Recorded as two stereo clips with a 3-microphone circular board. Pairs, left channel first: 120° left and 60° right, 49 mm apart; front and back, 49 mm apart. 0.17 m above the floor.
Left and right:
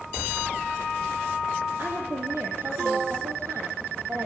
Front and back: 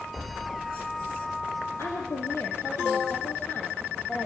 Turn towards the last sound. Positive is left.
turn(degrees=-55)